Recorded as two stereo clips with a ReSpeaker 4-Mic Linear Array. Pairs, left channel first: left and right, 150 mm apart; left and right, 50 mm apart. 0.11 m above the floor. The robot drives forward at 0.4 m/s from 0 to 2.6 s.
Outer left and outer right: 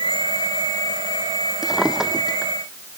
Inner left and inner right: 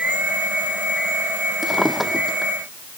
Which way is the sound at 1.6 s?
5° right (ahead or behind).